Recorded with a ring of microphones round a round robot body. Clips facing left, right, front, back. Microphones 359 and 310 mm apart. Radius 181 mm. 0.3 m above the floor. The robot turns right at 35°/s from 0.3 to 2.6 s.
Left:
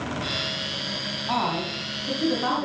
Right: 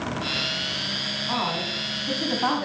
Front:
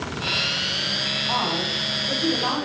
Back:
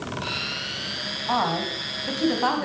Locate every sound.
1.3 s a woman speaking: 160° left, 1.9 m; by 2.6 s 150° right, 1.9 m